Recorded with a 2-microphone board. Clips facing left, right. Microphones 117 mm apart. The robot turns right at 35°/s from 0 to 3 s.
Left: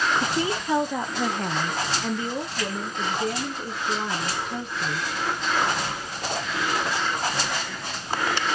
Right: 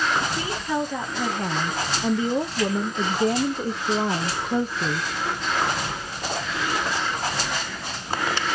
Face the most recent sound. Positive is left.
turn(degrees=-125)